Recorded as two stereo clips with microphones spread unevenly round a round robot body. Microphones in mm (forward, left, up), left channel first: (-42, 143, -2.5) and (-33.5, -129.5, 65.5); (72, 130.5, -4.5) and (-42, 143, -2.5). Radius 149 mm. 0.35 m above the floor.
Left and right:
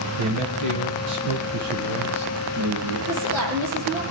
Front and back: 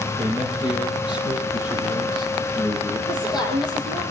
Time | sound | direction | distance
0.2 | a man speaking | 110° right | 6.5 m
3.1 | a woman speaking | 115° right | 7.5 m